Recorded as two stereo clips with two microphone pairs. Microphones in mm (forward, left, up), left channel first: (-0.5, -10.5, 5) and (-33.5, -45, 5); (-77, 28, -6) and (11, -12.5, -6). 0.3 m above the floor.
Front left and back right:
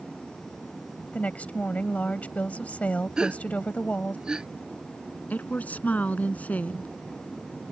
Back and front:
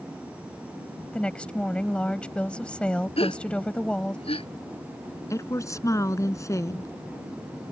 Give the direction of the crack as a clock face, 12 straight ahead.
No crack in this recording.